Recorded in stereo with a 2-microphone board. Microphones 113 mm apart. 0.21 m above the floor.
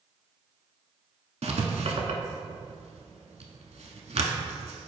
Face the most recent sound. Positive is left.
turn(degrees=-75)  # may be behind; listen again after turning